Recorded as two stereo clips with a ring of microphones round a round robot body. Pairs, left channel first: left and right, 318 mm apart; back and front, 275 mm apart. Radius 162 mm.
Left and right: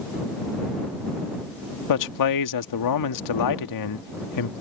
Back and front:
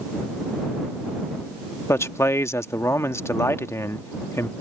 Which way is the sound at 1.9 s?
100° left.